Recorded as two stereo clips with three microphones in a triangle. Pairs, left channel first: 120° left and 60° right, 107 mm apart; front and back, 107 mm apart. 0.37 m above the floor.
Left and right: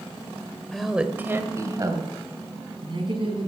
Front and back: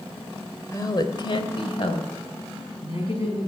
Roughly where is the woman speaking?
Ahead left.